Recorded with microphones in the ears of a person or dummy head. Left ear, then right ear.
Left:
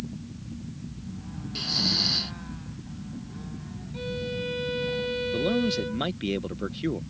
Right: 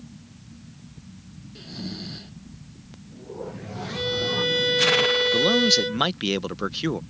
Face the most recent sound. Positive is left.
turn(degrees=-40)  # may be behind; listen again after turning